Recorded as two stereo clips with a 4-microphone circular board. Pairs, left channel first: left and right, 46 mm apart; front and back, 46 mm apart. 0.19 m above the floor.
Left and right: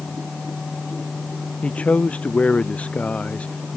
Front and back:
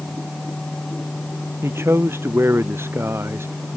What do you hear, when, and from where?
1.6 s a man speaking: 150° left